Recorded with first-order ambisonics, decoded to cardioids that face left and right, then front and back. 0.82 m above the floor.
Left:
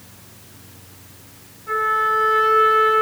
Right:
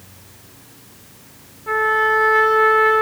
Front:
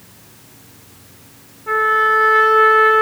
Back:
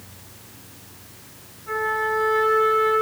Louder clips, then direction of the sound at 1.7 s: Right 2 dB, front 9 dB; 45° right.